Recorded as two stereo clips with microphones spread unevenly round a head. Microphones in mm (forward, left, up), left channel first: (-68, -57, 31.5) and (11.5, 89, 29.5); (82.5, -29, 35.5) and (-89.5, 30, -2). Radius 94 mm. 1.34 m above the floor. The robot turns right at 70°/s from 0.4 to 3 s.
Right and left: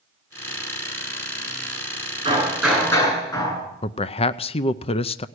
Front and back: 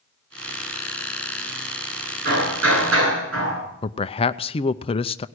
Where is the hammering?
120° left, 9 m; by 3.6 s 175° left, 9 m.